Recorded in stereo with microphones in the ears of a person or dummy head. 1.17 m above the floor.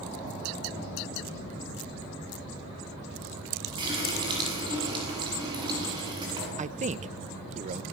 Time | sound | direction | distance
3.8 | a running tap | 25° right (ahead or behind) | 9.5 m
6.6 | a man speaking | 35° right (ahead or behind) | 1.1 m